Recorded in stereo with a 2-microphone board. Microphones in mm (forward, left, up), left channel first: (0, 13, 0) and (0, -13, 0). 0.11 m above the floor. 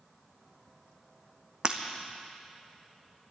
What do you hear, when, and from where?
1.6 s breaking glass: 35° right (ahead or behind), 1.1 m